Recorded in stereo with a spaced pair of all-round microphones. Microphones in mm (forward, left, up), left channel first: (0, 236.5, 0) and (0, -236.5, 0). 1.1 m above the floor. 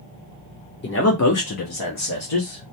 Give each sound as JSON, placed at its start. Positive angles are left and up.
{"t": 0.8, "sound": "a man speaking", "side_deg": 25, "distance_m": 0.6}